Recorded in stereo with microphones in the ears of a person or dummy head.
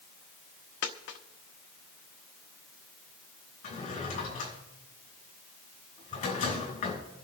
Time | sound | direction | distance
0.8 | a dropped coin | 45° left (ahead or behind) | 1.1 m
3.6 | a drawer | 35° left (ahead or behind) | 6 m